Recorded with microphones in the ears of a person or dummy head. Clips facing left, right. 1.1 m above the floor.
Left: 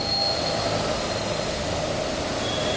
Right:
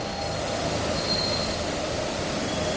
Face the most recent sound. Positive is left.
No sound to turn to.